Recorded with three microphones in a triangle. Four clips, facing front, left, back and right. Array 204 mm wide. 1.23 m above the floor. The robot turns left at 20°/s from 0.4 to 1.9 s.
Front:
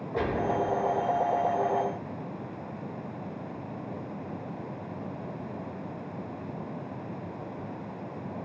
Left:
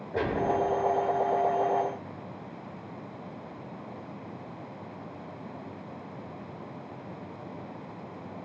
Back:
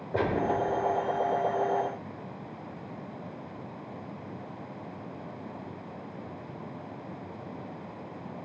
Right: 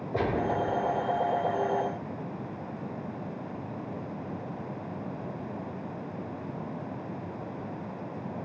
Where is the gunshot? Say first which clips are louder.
Left 1 dB, back 1 dB; 175° right, 8.5 m; by 0.6 s straight behind, 8.5 m.